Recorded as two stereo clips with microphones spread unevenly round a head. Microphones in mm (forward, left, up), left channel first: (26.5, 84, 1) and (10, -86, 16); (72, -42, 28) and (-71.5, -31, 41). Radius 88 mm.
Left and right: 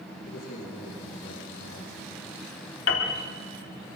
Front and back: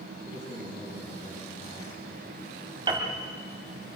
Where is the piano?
110° left, 2.5 m.